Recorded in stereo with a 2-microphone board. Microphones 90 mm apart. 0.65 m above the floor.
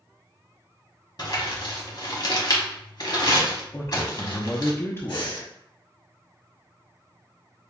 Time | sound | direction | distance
1.2 | crumpling | 50° left (ahead or behind) | 1.0 m
3.7 | a man speaking | 30° left (ahead or behind) | 0.7 m
5.1 | breathing | 60° left (ahead or behind) | 2 m